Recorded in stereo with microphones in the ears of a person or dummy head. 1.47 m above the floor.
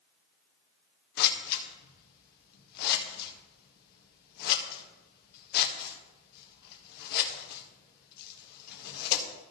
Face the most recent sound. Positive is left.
turn(degrees=55)  # may be behind; listen again after turning